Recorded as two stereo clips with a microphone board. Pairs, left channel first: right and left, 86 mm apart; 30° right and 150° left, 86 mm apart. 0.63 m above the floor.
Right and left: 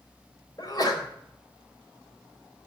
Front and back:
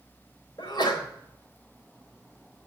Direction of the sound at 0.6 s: 55° right.